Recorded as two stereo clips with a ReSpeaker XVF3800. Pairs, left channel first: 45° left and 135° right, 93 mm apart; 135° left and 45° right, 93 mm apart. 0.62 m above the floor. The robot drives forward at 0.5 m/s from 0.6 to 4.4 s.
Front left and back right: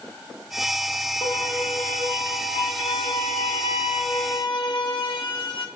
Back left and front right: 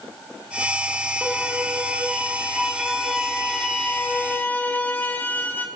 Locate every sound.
1.2 s a violin: 30° left, 2.5 m; by 5.7 s 70° left, 1.3 m